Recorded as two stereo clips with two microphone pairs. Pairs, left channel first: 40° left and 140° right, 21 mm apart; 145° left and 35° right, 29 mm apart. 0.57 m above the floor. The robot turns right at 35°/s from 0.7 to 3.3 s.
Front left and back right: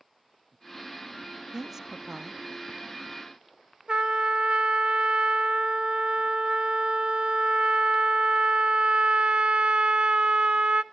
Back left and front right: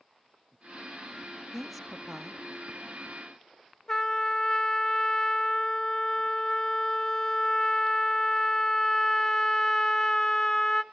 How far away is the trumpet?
About 0.6 m.